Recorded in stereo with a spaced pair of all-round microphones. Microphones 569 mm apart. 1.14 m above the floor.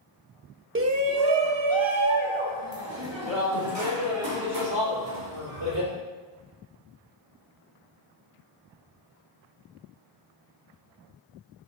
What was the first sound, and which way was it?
A shout, 20° right (ahead or behind).